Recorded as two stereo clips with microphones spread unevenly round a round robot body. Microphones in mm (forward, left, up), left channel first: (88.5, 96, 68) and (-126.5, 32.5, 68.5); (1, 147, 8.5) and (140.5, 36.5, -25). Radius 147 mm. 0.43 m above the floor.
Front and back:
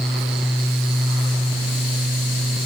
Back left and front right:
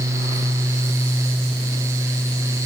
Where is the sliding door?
No sliding door in this recording.